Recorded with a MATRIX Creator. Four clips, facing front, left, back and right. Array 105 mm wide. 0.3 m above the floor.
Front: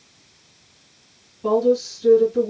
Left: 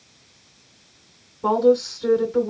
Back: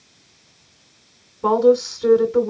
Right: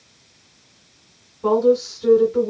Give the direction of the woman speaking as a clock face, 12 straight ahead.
6 o'clock.